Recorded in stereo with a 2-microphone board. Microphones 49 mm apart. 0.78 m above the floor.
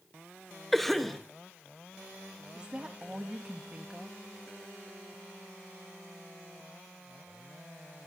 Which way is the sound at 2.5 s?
20° right (ahead or behind).